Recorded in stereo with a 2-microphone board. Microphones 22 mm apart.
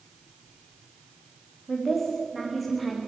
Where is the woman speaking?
Centre (ahead or behind), 7.5 m.